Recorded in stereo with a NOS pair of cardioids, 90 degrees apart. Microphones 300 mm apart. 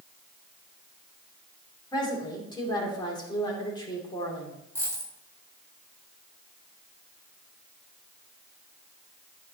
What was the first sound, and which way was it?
A woman speaking, 15° left.